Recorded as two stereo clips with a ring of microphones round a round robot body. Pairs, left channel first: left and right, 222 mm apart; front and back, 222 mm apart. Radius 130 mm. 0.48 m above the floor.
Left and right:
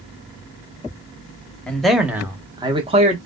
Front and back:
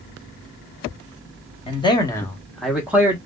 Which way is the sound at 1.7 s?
10° left.